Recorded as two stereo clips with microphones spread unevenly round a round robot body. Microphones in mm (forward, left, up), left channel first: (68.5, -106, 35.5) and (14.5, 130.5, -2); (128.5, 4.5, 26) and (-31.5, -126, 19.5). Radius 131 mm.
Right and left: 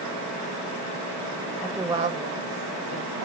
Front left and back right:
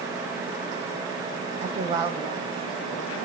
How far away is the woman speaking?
About 0.6 m.